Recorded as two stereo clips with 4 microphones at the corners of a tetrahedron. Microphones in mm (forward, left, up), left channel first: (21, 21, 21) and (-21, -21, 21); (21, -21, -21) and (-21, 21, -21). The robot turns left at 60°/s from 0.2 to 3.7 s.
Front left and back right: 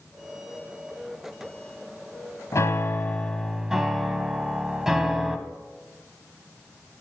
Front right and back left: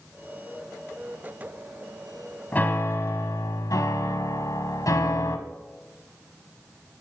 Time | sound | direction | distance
2.5 | a piano | 15° left | 1.2 m